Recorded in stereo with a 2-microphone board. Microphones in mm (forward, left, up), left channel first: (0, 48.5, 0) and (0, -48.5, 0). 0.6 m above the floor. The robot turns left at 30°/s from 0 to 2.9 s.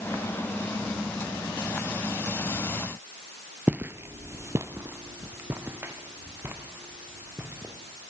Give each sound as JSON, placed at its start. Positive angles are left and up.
{"t": 3.7, "sound": "footsteps", "side_deg": -15, "distance_m": 0.6}